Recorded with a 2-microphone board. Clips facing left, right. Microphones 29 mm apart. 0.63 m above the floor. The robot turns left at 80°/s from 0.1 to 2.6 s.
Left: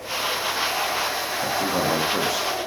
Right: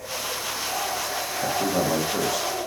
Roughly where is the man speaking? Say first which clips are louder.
Even; centre.